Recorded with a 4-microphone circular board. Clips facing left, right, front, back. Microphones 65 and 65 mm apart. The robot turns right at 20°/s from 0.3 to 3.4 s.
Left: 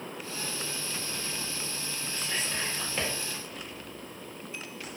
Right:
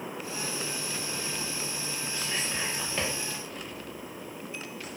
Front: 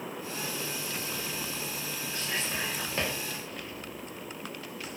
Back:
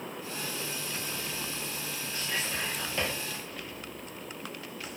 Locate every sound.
2.1 s whispering: 10° right, 1.2 m; by 3.1 s 10° left, 1.2 m